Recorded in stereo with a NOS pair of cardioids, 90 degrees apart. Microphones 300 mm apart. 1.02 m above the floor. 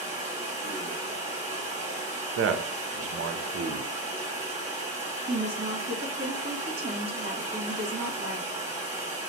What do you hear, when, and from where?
0.0 s running water: 25° right, 1.9 m
2.4 s a man speaking: 50° right, 0.6 m
5.3 s a woman speaking: 35° right, 1.4 m